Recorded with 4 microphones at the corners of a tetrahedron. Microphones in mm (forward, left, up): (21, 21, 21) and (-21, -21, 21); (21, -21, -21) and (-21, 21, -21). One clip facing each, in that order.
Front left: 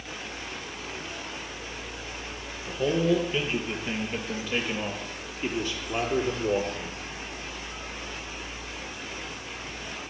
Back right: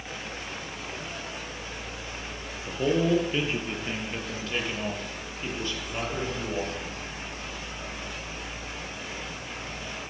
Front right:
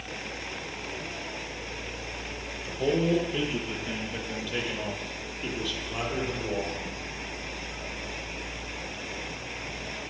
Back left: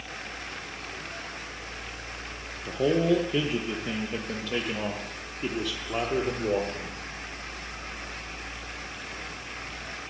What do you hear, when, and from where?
2.6 s a man speaking: 150° left, 5.5 m; by 7.0 s 95° left, 7 m